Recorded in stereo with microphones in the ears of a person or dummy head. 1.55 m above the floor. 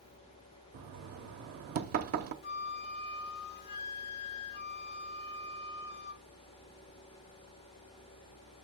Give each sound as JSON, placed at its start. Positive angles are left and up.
{"t": 0.7, "sound": "knocking", "side_deg": -50, "distance_m": 0.9}
{"t": 2.4, "sound": "a flute", "side_deg": 60, "distance_m": 0.5}